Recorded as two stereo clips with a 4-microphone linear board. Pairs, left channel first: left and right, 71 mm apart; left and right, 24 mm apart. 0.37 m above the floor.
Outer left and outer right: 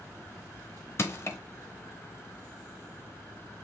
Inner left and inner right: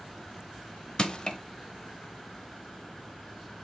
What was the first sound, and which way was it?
Crushing, 40° left (ahead or behind).